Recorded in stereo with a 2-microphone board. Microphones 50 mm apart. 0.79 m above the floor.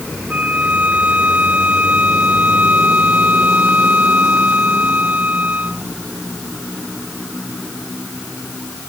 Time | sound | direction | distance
0.3 | a violin | 30° right (ahead or behind) | ?